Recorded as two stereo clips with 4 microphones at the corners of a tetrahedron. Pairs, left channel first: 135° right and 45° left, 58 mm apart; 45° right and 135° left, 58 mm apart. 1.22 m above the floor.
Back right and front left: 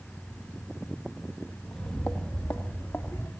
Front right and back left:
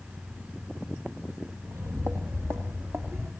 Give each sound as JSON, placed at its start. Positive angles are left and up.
{"t": 1.7, "sound": "footsteps", "azimuth_deg": 140, "distance_m": 2.0}